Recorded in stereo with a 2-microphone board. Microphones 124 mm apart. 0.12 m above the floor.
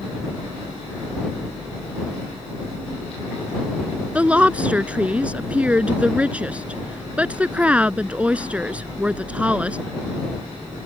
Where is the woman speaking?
10° right (ahead or behind).